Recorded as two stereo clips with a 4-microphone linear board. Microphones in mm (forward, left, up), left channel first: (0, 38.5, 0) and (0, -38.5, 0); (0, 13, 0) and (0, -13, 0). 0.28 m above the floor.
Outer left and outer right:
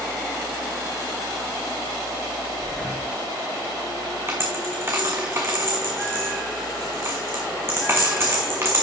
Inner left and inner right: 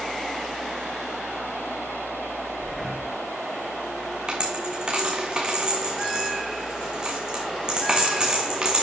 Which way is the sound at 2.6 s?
Centre (ahead or behind).